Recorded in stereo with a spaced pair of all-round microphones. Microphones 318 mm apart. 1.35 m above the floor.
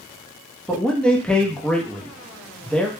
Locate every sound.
0.7 s a man speaking: 5° left (ahead or behind), 0.5 m